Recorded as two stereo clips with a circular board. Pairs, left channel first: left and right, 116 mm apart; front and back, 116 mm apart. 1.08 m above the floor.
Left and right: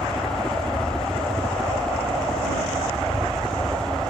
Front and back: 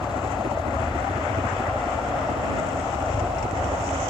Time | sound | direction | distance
0.0 | a helicopter | straight behind | ?